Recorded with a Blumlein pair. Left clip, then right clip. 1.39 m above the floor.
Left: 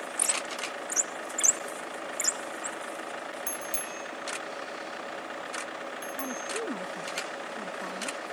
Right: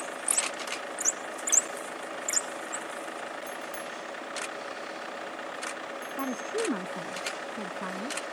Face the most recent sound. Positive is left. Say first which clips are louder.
# right 4 dB
turn(degrees=-15)